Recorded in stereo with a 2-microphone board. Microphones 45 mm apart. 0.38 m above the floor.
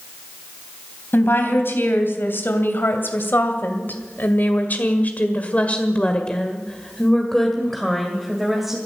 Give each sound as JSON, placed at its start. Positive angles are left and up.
{"t": 1.1, "sound": "a woman speaking", "side_deg": 55, "distance_m": 3.0}